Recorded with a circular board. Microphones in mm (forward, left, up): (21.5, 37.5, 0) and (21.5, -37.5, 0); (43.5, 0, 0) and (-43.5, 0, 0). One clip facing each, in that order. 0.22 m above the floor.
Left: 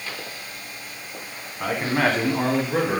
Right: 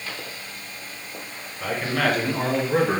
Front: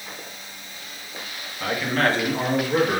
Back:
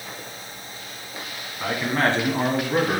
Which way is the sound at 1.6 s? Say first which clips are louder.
Left 2 dB, even; 115° left.